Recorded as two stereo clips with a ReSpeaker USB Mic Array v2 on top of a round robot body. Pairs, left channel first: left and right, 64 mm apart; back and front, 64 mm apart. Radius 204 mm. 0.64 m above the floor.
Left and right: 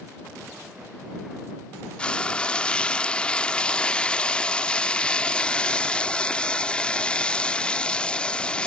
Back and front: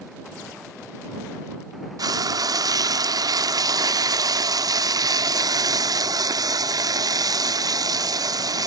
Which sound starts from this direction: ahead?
Frying, at 2.0 s.